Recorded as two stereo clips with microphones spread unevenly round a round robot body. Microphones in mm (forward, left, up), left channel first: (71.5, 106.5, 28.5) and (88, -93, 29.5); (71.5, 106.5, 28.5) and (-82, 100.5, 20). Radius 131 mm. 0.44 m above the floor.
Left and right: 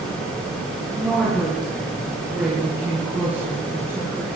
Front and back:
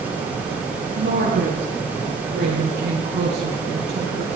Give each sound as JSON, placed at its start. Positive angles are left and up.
{"t": 1.0, "sound": "a woman speaking", "azimuth_deg": -175, "distance_m": 9.0}